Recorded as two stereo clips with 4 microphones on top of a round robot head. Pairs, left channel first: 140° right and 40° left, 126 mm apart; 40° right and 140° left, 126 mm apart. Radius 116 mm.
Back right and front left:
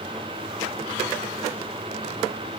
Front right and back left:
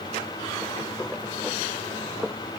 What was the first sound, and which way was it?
Only background noise.